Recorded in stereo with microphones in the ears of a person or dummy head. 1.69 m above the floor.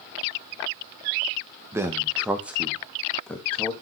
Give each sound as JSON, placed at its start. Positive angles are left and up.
{"t": 1.7, "sound": "a man speaking", "side_deg": -10, "distance_m": 1.9}